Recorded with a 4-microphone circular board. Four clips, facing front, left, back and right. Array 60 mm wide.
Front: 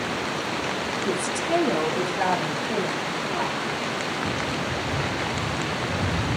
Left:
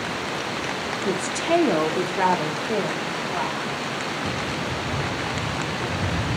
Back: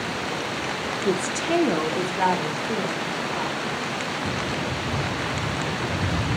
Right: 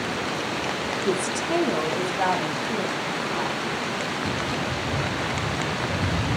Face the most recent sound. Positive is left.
turn(degrees=90)